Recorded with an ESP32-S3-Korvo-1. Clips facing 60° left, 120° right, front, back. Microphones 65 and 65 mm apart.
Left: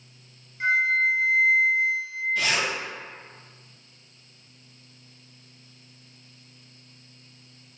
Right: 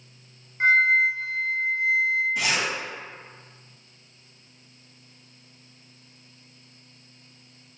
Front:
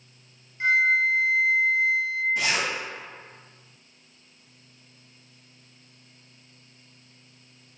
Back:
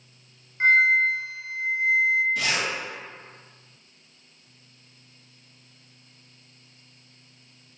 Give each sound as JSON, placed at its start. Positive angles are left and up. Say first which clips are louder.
{"t": 0.6, "sound": "a flute", "louder": "right 3 dB, back 3 dB", "azimuth_deg": -140, "distance_m": 0.5}
{"t": 2.4, "sound": "a zipper", "louder": "even, front 1 dB", "azimuth_deg": -55, "distance_m": 1.8}